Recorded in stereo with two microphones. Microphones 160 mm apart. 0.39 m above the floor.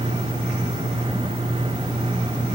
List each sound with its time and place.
Only background noise.